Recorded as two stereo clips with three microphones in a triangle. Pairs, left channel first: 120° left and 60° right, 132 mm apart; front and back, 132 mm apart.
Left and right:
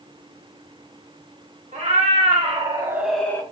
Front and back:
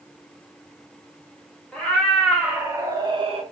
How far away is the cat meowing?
About 1.0 m.